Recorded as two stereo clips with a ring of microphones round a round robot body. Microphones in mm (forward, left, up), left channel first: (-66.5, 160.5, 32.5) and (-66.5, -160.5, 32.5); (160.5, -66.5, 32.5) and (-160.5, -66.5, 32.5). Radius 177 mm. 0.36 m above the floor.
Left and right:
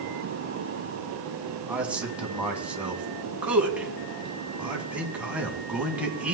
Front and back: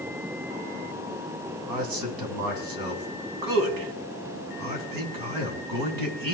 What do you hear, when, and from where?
1.7 s a man speaking: 175° right, 3 m